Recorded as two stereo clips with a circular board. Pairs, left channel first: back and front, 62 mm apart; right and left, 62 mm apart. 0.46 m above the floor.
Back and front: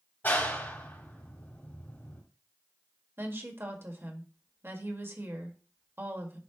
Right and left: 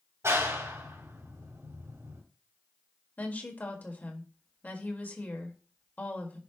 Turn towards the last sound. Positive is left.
turn(degrees=-35)